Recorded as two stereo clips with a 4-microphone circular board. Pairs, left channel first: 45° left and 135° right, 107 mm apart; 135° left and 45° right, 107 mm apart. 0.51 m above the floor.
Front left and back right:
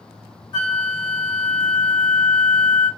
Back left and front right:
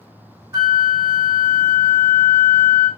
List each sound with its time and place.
0.5 s a flute: 10° left, 1.7 m